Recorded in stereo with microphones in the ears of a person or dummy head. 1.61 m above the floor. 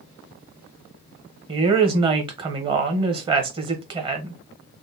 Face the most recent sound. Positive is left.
turn(degrees=-30)  # may be behind; listen again after turning